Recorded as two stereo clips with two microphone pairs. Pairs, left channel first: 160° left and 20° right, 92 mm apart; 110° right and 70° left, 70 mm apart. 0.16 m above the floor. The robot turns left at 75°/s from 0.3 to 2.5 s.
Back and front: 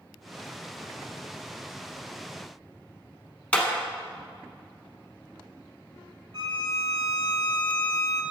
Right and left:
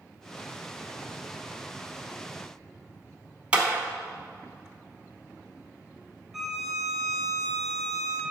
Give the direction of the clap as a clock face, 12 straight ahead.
8 o'clock.